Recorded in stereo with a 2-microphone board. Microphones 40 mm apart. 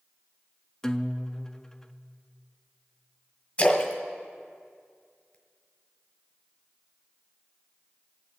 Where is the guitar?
10° left (ahead or behind), 0.5 m.